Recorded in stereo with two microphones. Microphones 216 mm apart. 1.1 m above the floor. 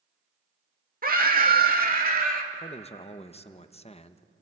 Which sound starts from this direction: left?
A man speaking, at 2.5 s.